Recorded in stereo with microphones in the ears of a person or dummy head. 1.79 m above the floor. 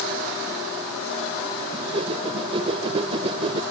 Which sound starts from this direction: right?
A whoosh, at 1.7 s.